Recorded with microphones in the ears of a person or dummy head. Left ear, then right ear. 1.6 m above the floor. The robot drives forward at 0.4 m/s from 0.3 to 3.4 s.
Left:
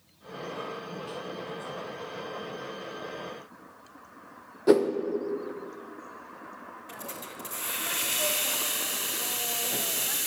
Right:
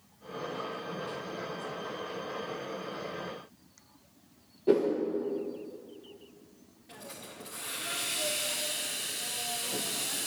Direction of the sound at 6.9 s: 30° left (ahead or behind).